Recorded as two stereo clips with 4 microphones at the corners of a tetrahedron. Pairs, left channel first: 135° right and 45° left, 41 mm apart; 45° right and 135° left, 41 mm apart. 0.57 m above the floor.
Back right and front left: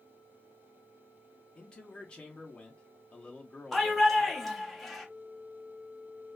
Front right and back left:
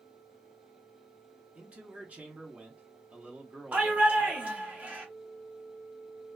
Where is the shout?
140° left, 1.1 m.